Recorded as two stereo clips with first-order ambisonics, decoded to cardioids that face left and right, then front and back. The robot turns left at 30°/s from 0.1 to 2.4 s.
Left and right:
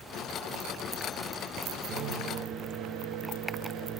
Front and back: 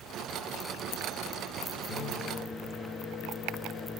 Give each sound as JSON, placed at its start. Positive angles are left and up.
{"t": 1.9, "sound": "a microwave", "azimuth_deg": -50, "distance_m": 0.9}